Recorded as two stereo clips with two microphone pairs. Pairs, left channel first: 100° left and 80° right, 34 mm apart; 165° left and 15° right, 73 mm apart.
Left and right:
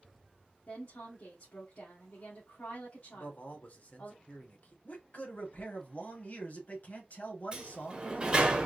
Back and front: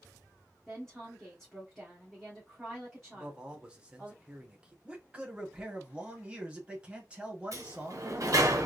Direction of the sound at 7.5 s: 25° right.